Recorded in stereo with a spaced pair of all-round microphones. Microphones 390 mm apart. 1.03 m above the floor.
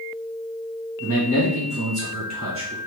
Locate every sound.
1.0 s a man speaking: 55° right (ahead or behind), 1.5 m; by 2.8 s 25° right (ahead or behind), 0.7 m